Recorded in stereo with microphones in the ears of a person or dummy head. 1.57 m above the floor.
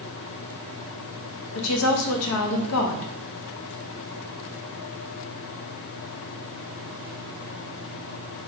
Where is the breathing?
I don't hear breathing.